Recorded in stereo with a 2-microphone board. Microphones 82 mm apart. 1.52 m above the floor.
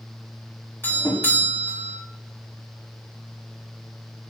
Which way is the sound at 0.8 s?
25° left (ahead or behind).